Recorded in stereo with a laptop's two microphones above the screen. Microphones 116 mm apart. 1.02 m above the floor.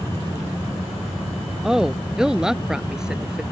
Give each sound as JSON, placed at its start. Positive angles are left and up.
{"t": 1.6, "sound": "a woman speaking", "side_deg": -5}